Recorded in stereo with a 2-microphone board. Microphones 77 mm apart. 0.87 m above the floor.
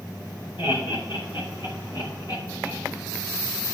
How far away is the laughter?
About 4 m.